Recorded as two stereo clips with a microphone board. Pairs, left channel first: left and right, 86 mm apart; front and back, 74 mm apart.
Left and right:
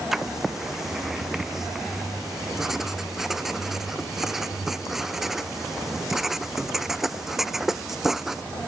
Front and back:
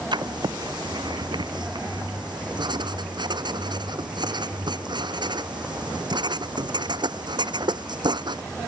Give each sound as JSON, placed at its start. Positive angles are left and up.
{"t": 0.1, "sound": "writing", "azimuth_deg": -175}